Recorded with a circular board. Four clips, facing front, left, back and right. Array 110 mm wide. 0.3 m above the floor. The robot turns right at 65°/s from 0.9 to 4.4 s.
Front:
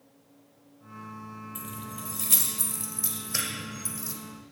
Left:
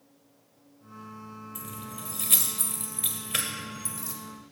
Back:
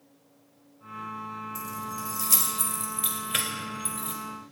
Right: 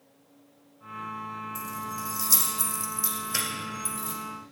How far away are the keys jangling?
About 0.7 m.